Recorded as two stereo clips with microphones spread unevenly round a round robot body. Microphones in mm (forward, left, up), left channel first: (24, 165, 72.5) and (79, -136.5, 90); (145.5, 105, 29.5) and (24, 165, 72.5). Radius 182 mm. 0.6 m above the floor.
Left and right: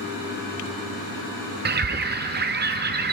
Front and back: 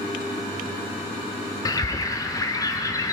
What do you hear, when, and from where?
1.6 s a bird: 30° right, 0.7 m